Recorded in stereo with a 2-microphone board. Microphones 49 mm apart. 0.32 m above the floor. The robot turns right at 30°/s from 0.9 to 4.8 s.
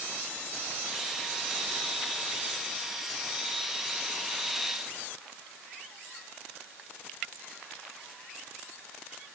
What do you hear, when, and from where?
Only background noise.